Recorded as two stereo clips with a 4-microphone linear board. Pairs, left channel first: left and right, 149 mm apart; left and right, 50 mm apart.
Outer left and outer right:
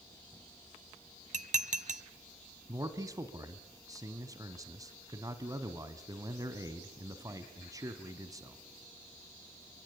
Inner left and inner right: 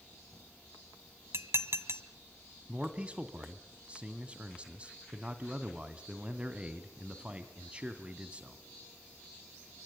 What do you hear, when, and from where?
1.3 s dishes clattering: 55° right (ahead or behind), 0.9 m
2.7 s a man speaking: 25° right (ahead or behind), 2 m